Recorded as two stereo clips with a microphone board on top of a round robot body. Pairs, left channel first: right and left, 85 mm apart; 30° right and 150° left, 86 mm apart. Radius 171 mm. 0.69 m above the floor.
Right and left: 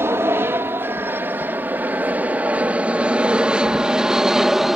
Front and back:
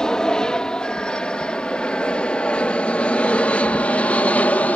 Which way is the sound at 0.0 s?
50° left.